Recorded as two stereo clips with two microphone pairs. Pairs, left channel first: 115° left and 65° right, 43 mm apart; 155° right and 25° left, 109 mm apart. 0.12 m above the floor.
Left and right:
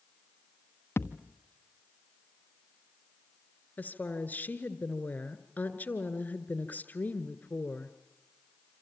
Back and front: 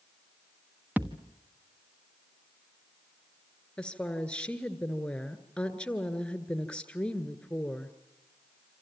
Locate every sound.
1.0 s a thud: 100° left, 1.2 m
3.8 s a woman speaking: 125° left, 1.6 m